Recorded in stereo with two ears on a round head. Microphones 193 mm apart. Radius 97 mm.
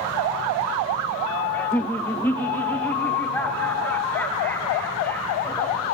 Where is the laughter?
10° left (ahead or behind), 0.5 m.